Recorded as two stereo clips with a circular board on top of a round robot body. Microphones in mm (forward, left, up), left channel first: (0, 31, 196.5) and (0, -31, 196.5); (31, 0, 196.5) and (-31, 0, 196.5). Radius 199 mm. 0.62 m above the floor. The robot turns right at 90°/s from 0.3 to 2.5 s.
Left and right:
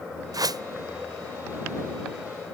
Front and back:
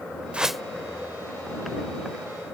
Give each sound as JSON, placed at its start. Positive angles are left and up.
{"t": 0.3, "sound": "a whoosh", "azimuth_deg": -110}